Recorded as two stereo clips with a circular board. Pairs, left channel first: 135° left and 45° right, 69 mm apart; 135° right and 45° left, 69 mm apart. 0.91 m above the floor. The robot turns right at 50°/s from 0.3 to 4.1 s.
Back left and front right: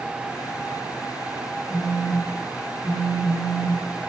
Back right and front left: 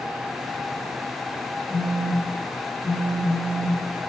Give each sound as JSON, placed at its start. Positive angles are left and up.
{"t": 1.7, "sound": "a phone buzzing", "azimuth_deg": -55, "distance_m": 1.0}